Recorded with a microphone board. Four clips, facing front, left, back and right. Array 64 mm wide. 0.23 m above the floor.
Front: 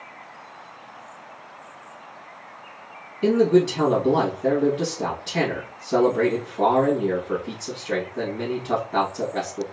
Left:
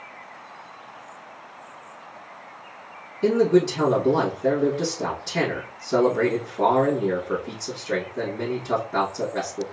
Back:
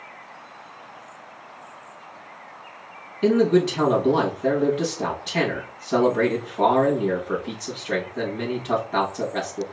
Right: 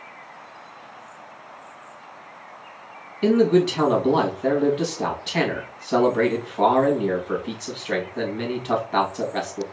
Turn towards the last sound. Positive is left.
turn(degrees=-110)